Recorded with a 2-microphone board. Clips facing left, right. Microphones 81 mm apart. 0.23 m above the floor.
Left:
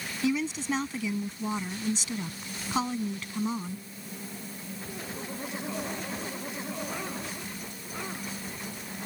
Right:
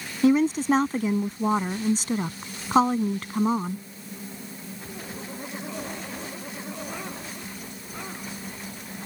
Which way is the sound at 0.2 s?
45° right (ahead or behind).